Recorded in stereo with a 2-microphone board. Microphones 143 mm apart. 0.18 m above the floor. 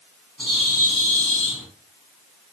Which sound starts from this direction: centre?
A bird, at 0.4 s.